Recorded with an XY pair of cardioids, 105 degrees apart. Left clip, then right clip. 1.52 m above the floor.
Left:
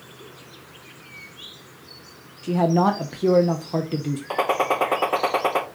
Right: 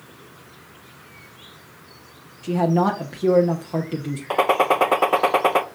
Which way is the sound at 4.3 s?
20° right.